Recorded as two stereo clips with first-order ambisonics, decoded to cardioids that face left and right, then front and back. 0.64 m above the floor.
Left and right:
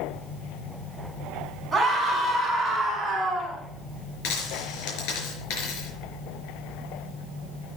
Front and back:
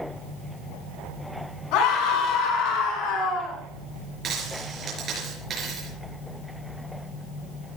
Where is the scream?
5° right, 7 m; by 3.6 s 20° right, 7 m.